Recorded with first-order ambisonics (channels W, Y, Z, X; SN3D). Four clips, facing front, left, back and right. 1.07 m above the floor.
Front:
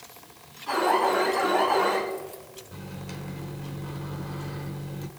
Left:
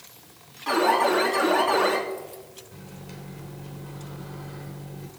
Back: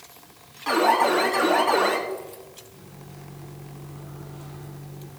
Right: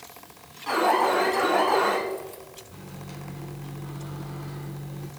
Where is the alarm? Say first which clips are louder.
Left 1 dB, back 3 dB; 175° left, 3 m.